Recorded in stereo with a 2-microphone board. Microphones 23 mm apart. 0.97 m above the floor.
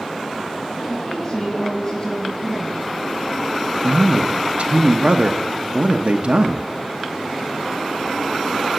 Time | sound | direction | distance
0.9 | a woman speaking | 30° left (ahead or behind) | 8.5 m
3.8 | a man speaking | 65° right (ahead or behind) | 0.8 m